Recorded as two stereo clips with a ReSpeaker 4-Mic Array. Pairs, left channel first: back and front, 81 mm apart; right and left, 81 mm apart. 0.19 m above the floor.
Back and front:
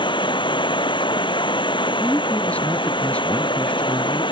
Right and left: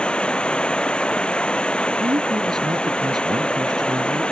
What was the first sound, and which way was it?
Running water, 170° right.